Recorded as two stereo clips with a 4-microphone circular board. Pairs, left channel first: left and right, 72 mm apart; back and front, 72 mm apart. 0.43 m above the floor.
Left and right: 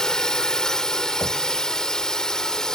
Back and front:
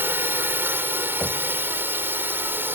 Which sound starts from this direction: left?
Knocking, at 1.2 s.